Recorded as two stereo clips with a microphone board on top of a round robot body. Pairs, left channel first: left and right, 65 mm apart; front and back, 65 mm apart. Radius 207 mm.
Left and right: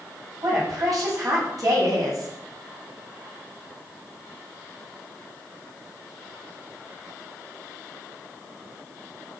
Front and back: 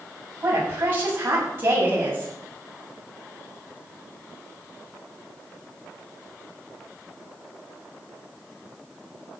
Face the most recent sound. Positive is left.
turn(degrees=-120)